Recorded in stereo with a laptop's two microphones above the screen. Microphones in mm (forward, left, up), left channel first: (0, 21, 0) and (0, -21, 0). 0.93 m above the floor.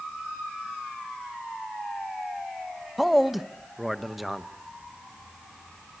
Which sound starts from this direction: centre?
A man speaking, at 3.0 s.